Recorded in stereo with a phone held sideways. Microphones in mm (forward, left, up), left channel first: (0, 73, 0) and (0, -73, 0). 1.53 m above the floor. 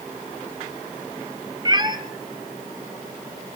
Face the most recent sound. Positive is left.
turn(degrees=-30)  # may be behind; listen again after turning